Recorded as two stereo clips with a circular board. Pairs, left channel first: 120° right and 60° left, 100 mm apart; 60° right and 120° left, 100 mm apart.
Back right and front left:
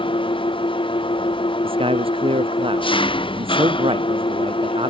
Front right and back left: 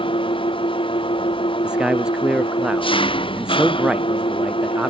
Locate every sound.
0.0 s an engine running: 90° right
1.6 s a man speaking: 40° left